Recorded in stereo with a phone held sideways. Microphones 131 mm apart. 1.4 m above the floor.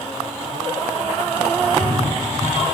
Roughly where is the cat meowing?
Right.